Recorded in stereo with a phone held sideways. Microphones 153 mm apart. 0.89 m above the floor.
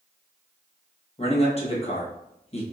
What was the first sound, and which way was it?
A man speaking, 40° left (ahead or behind).